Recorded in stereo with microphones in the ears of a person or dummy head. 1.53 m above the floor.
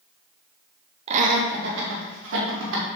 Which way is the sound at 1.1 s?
35° right (ahead or behind).